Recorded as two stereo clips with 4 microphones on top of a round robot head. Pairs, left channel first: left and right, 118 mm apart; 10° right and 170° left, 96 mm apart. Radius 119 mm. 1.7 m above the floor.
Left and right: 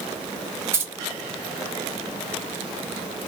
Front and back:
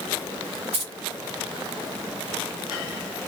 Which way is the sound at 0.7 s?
160° right.